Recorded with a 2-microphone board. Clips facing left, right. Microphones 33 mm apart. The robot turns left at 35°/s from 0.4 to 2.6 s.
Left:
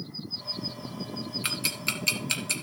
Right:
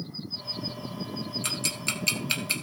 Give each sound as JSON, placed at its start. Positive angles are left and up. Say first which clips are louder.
{"t": 1.4, "sound": "ticking", "louder": "left 2 dB", "side_deg": 20, "distance_m": 2.0}